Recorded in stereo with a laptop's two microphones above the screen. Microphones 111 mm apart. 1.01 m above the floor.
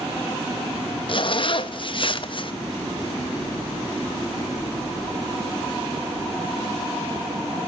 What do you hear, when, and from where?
1.1 s a zipper: 50° left (ahead or behind), 1.1 m